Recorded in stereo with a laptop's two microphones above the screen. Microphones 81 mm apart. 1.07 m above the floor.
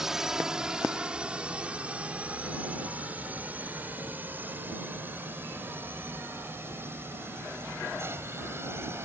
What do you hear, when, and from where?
0.0 s a drone: 5° right (ahead or behind); by 9.1 s 30° right (ahead or behind)